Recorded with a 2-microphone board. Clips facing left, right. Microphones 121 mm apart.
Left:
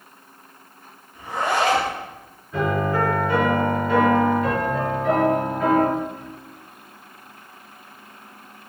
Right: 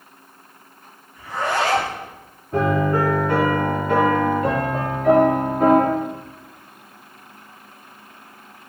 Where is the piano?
60° right (ahead or behind), 3.5 m.